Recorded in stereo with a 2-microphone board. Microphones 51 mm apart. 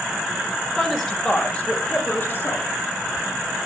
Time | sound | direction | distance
0.8 | a woman speaking | 10° right (ahead or behind) | 1.4 m